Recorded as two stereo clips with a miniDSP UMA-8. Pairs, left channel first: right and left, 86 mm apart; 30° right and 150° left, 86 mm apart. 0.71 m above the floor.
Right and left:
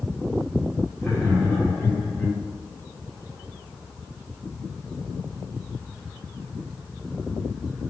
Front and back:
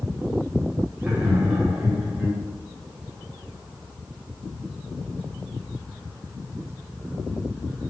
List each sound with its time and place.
1.0 s laughter: 145° right, 1.2 m